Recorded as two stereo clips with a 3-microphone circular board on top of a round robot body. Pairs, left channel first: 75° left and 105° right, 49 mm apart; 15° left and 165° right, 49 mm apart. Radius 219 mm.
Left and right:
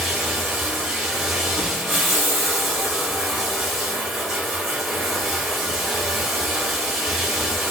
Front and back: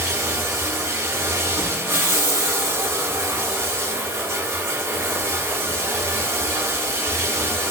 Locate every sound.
0.0 s running water: 170° left, 1.1 m
1.5 s an explosion: 145° right, 1.3 m